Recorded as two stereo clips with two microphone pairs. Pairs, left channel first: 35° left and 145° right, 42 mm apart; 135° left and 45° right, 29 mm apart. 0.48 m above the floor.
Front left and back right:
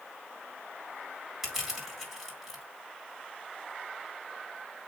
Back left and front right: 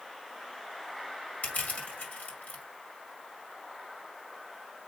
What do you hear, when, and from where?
1.4 s crushing: 140° left, 4 m